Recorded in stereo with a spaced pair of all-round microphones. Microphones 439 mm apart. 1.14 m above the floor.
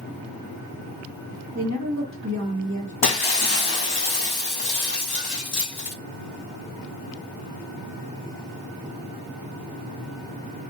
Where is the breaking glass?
60° left (ahead or behind), 0.7 m.